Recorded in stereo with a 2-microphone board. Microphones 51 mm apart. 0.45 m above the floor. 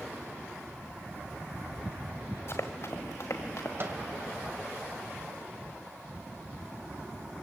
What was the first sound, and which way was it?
Running footsteps, 55° left (ahead or behind).